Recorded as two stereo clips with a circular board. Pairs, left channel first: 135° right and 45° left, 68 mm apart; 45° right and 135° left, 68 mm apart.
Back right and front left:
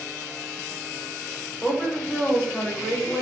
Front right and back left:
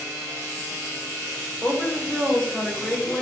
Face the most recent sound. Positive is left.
turn(degrees=-110)